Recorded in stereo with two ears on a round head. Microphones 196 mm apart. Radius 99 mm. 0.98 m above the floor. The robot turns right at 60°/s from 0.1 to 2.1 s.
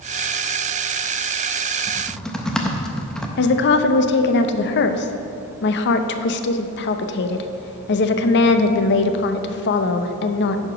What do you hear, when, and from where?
1.9 s typing on a keyboard: 10° right (ahead or behind), 0.6 m; by 3.3 s 5° left (ahead or behind), 0.6 m
3.4 s a woman speaking: 55° left (ahead or behind), 0.6 m